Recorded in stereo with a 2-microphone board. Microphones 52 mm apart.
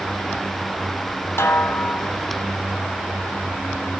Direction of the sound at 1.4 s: 45° left (ahead or behind).